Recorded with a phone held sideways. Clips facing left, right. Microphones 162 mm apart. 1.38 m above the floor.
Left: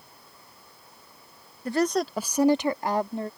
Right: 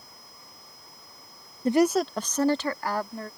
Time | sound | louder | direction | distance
1.6 | a woman speaking | right 3 dB | 25° right (ahead or behind) | ?